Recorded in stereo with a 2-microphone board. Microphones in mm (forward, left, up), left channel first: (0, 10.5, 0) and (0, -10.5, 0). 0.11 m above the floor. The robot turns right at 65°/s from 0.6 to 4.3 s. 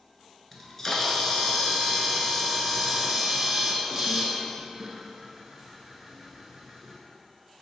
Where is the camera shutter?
20° left (ahead or behind), 0.7 m; by 7.0 s 25° right (ahead or behind), 0.7 m.